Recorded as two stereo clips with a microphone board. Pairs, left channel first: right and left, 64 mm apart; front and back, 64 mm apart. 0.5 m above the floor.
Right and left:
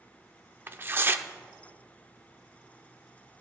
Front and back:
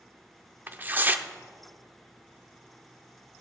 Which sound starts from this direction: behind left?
Tearing paper, at 0.7 s.